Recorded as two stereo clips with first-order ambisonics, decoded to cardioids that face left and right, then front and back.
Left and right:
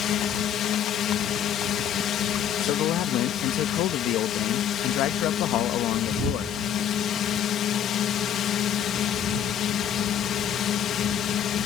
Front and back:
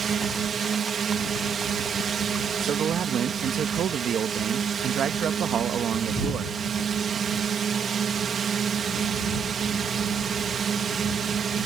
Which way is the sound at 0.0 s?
125° left.